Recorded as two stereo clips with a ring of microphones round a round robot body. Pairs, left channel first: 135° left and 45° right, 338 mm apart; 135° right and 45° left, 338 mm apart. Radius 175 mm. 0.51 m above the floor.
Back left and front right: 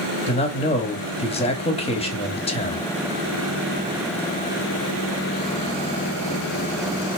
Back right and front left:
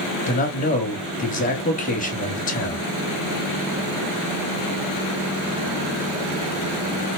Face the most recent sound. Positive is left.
turn(degrees=-170)